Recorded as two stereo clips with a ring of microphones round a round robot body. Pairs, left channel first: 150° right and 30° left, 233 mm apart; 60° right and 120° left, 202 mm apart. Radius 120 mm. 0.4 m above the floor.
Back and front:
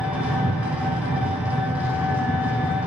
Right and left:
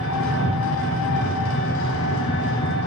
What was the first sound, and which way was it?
An engine running, 55° right.